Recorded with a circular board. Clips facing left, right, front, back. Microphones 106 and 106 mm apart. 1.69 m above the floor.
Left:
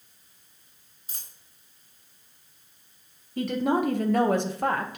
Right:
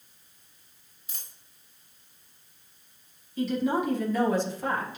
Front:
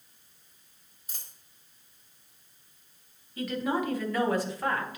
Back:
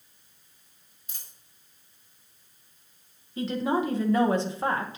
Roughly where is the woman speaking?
Behind left.